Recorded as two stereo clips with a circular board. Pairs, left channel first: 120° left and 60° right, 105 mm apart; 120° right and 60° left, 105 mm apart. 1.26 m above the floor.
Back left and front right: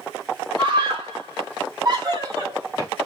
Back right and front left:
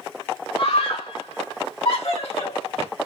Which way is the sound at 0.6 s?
100° right.